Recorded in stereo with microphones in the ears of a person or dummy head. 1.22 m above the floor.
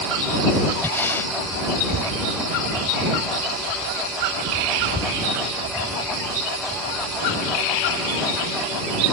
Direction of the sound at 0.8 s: 15° left (ahead or behind).